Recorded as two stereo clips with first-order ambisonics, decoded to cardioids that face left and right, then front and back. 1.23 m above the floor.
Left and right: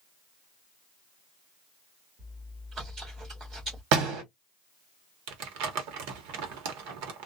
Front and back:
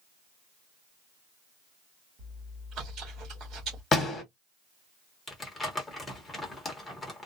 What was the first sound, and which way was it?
Chewing, 145° right.